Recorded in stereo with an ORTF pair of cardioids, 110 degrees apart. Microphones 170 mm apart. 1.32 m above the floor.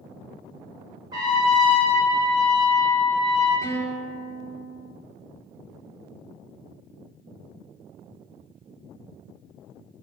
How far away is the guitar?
About 1.1 m.